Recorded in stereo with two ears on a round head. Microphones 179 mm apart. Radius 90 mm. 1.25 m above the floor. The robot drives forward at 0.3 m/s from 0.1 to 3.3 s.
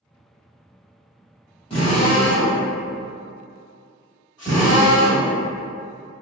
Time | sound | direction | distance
1.7 | a drill | 30° left (ahead or behind) | 1.2 m